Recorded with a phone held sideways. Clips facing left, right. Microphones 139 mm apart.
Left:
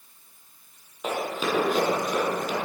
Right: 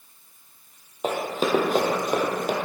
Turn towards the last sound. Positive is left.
turn(degrees=-60)  # may be behind; listen again after turning